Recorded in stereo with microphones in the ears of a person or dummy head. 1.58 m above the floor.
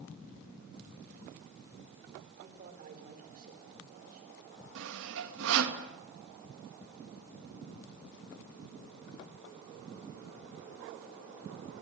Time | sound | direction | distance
2.4 | a man speaking | 45° right (ahead or behind) | 4.5 m
4.8 | sawing | 75° right (ahead or behind) | 2.5 m